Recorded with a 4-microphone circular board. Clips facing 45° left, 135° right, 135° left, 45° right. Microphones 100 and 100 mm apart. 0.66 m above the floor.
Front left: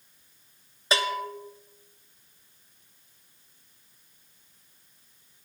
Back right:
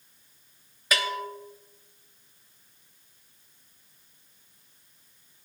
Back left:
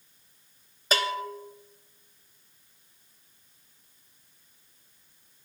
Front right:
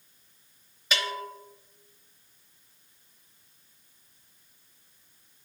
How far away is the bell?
About 0.8 m.